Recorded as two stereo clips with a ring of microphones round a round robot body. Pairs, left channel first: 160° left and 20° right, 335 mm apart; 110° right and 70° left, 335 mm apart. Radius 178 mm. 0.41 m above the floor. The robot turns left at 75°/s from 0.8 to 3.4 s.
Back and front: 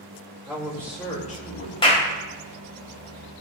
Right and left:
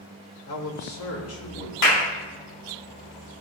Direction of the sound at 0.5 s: 100° right.